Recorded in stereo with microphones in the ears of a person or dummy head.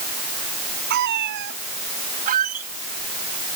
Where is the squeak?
45° right (ahead or behind).